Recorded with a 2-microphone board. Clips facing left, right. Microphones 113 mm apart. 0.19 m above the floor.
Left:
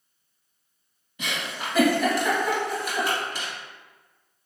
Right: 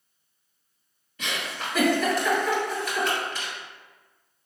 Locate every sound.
1.2 s a giggle: 10° left (ahead or behind), 1.9 m